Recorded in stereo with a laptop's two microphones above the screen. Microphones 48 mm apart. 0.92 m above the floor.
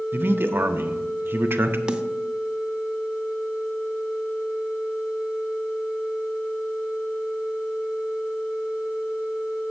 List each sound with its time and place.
0.1 s a man speaking: 50° right (ahead or behind), 0.7 m
1.9 s a snare drum: 20° right (ahead or behind), 0.5 m